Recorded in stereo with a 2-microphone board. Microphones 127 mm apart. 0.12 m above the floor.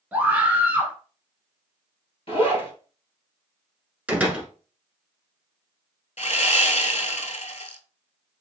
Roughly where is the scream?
Centre.